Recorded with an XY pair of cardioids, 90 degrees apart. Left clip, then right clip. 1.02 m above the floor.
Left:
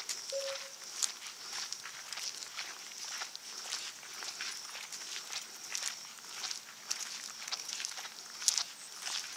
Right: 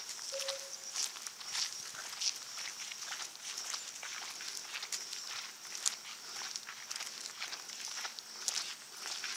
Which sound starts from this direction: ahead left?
A cowbell, at 0.3 s.